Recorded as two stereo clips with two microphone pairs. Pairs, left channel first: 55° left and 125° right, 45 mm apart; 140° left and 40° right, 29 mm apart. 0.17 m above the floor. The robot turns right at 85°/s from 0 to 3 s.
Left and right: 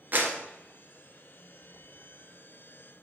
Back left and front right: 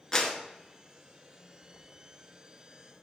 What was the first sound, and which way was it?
A clap, 150° right.